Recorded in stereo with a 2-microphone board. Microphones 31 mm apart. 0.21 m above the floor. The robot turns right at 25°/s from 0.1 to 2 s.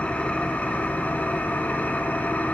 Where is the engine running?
55° left, 0.8 m; by 2.5 s 100° left, 0.8 m.